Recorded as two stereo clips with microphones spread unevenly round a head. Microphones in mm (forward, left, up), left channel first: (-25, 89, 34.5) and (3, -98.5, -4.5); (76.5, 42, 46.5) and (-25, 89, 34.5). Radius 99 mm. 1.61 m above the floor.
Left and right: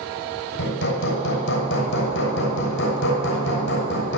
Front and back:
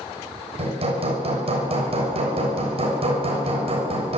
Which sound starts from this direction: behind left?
Hammering, at 0.6 s.